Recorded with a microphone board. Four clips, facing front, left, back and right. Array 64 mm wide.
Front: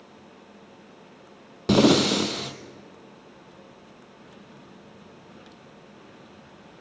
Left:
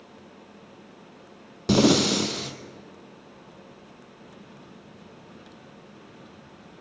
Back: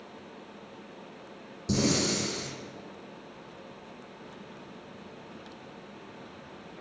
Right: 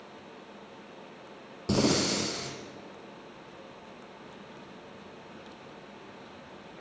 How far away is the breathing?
About 1.2 m.